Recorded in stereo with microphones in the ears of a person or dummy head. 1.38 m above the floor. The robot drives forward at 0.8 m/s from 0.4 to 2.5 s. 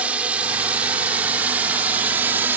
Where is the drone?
10° right (ahead or behind).